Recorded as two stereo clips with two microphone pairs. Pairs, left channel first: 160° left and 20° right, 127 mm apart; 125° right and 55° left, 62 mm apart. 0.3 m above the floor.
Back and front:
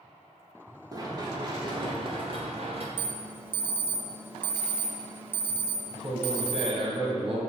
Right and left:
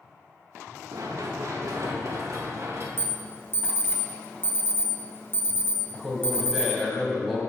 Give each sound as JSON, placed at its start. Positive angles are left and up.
{"t": 0.9, "sound": "running footsteps", "azimuth_deg": 40, "distance_m": 3.0}
{"t": 3.0, "sound": "an alarm", "azimuth_deg": -85, "distance_m": 1.4}
{"t": 5.9, "sound": "a man speaking", "azimuth_deg": -40, "distance_m": 2.0}